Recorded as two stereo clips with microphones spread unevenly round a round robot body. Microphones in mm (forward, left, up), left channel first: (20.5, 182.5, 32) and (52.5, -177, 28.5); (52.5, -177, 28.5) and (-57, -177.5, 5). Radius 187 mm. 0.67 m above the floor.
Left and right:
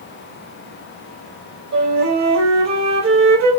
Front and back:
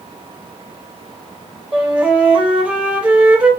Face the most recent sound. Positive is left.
turn(degrees=-115)